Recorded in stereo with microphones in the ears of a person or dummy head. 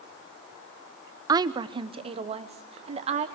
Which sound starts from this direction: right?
A woman speaking, at 1.3 s.